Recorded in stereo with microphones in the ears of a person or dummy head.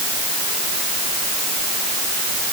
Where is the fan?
No fan in this recording.